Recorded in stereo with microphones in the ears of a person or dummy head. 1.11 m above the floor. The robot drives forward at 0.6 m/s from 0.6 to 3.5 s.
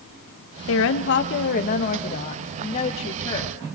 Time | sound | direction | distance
0.7 | a woman speaking | 65° left (ahead or behind) | 0.9 m